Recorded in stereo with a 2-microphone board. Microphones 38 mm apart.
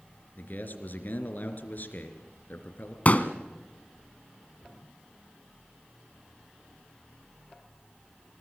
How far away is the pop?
About 1.5 m.